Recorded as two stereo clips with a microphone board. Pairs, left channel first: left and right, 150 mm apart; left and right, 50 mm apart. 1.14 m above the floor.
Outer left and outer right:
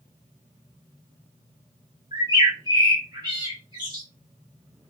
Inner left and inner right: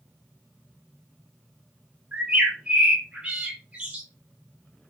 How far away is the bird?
About 1.2 m.